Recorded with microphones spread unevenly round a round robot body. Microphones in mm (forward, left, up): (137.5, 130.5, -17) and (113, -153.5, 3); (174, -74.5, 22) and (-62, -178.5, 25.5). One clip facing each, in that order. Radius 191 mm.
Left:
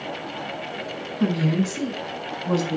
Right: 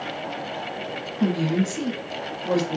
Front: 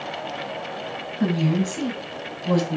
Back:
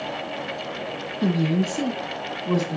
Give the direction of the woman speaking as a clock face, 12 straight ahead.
12 o'clock.